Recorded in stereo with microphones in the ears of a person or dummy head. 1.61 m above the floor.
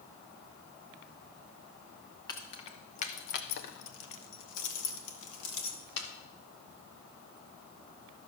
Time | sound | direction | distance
2.3 | keys jangling | 20° left (ahead or behind) | 1.1 m